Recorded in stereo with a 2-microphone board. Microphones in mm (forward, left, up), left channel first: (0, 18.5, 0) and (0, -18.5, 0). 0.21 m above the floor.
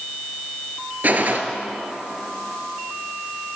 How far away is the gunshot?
About 1.0 m.